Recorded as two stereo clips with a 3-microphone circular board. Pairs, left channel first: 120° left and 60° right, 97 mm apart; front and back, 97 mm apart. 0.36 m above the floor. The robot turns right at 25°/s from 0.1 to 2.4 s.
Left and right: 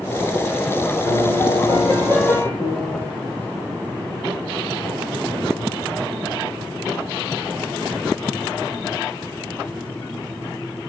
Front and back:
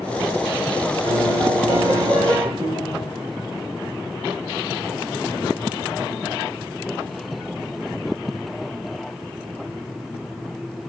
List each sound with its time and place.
1.1 s a piano: 155° left, 7.5 m; by 2.5 s 170° right, 7.5 m
2.6 s a piano: 165° left, 7 m